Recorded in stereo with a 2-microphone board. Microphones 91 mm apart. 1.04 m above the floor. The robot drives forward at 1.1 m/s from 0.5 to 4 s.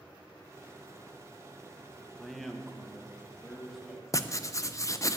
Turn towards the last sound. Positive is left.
turn(degrees=35)  # may be behind; listen again after turning